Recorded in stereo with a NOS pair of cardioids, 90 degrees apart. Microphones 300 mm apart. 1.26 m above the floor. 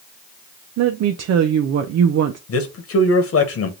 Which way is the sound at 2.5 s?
50° left.